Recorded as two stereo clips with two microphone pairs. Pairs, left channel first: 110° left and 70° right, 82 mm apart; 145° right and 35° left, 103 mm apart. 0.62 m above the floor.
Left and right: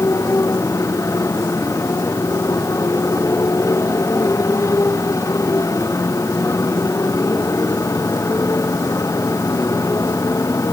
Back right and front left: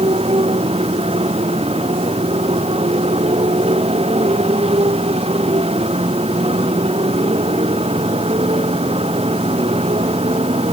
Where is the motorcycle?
55° left; by 10.7 s 60° left.